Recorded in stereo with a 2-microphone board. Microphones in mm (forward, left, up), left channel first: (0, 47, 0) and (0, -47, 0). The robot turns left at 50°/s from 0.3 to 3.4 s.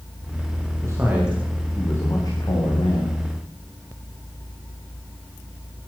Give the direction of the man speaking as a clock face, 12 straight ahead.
5 o'clock.